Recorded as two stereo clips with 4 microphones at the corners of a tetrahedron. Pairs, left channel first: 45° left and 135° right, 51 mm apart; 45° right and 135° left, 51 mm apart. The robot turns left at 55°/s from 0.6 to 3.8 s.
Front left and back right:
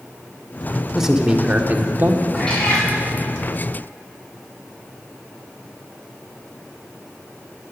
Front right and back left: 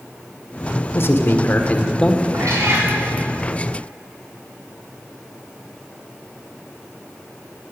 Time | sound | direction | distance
0.9 | a man speaking | 50° right | 1.3 m
2.3 | a cat meowing | 130° left | 5.5 m